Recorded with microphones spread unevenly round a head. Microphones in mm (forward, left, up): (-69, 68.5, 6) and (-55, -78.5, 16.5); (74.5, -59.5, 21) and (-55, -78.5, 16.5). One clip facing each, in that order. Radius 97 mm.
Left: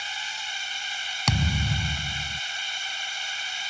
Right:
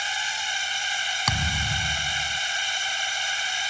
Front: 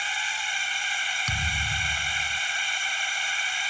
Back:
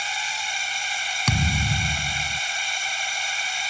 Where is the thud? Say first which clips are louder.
Left 4 dB, back 11 dB; 165° left.